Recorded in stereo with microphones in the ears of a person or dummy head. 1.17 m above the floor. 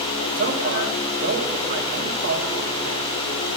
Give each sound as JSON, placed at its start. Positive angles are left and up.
{"t": 0.4, "sound": "a man speaking", "side_deg": -45, "distance_m": 2.0}